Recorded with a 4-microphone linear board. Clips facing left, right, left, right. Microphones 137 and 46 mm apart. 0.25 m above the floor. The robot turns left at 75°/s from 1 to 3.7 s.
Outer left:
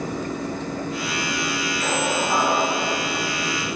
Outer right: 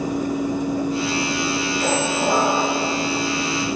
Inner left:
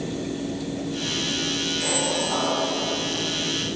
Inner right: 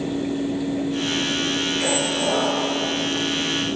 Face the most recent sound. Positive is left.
turn(degrees=-175)